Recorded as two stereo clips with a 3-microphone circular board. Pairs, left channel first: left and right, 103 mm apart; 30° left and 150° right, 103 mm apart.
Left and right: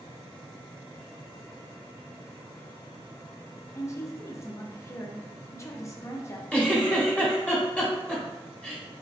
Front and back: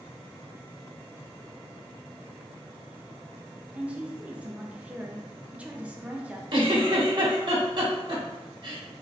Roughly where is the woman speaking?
Behind left.